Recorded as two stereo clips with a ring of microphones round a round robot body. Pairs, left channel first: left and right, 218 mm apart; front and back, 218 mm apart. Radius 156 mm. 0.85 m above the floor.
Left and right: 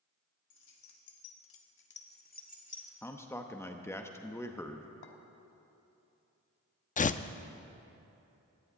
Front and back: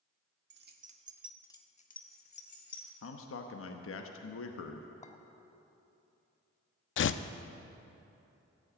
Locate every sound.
0.5 s keys jangling: 145° left, 1.5 m; by 2.9 s 30° left, 3 m
3.0 s a man speaking: 10° left, 0.9 m
5.0 s a clink: 60° left, 1.2 m
7.0 s tearing paper: 35° left, 0.5 m